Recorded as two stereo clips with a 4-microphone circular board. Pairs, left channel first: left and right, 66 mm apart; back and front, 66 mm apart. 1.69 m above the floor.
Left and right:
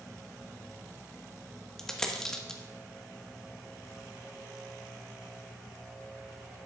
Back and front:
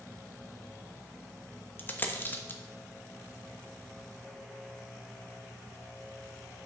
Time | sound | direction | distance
1.8 | a dropped coin | 165° left | 1.1 m